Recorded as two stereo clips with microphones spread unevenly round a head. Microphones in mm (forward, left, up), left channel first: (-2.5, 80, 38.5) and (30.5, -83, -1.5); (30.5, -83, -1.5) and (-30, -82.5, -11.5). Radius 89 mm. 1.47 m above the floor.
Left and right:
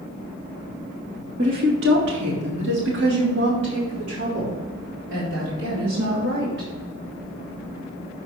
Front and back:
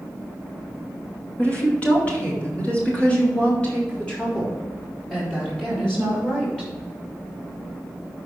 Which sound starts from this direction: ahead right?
A woman speaking, at 1.4 s.